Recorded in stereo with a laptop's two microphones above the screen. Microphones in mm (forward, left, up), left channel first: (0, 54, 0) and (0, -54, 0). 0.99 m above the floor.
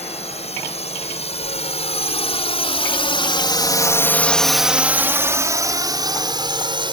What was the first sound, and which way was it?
A drone, 75° left (ahead or behind).